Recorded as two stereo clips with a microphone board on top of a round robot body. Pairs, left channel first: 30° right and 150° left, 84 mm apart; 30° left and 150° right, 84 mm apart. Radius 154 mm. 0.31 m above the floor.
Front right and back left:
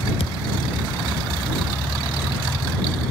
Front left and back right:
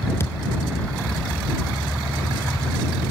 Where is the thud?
30° right.